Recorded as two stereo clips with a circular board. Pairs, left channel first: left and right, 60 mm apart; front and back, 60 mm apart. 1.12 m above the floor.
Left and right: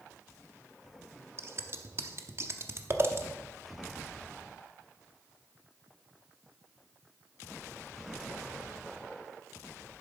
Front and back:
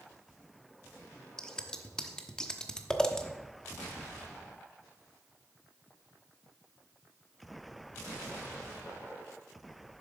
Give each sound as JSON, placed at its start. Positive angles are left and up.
{"t": 1.4, "sound": "scissors", "azimuth_deg": -75, "distance_m": 0.8}